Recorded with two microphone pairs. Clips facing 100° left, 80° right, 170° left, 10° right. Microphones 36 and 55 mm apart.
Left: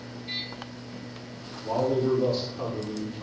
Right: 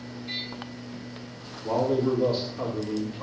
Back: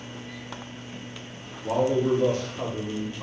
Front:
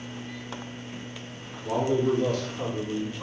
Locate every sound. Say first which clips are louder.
1.6 s a man speaking: right 1 dB, back 2 dB; 145° right, 1.4 m; by 3.2 s 105° right, 0.9 m